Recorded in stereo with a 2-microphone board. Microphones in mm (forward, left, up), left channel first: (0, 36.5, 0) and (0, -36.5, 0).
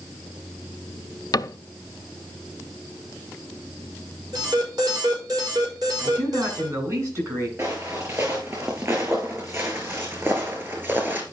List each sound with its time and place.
1.3 s a cupboard door: 55° left (ahead or behind), 0.5 m
4.3 s an alarm: 60° right (ahead or behind), 5.5 m
6.0 s a man speaking: 45° right (ahead or behind), 8 m
7.6 s footsteps: 35° right (ahead or behind), 5 m; by 11.2 s 30° right (ahead or behind), 3 m